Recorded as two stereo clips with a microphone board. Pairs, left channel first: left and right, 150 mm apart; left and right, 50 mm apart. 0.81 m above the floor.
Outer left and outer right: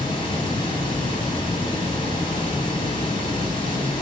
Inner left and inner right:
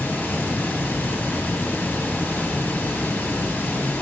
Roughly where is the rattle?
No rattle in this recording.